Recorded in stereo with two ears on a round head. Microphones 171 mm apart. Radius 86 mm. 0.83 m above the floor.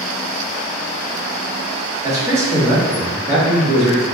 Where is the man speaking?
15° right (ahead or behind), 1.6 m.